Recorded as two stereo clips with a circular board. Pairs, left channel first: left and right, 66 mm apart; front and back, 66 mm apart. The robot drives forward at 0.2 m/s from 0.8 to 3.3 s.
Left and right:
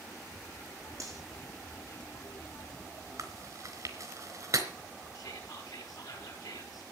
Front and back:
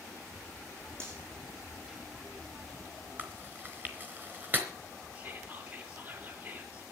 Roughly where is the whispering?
Behind left.